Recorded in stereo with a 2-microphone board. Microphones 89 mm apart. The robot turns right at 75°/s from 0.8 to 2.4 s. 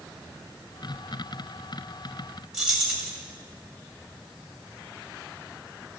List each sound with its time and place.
2.5 s keys jangling: 5° right (ahead or behind), 2 m